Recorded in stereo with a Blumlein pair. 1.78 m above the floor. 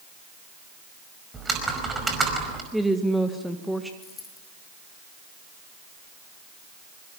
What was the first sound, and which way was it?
Typing on a keyboard, 15° right.